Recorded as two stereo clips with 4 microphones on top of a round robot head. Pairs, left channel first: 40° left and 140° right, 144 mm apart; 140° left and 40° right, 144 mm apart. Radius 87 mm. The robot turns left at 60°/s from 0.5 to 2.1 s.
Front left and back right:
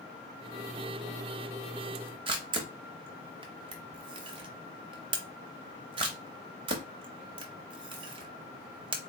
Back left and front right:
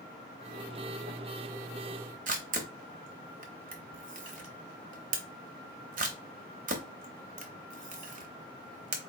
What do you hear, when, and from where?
2.3 s a camera shutter: 80° right, 0.8 m